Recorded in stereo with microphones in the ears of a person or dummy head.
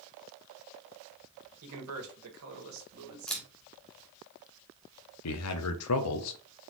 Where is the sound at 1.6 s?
80° right, 1.6 m.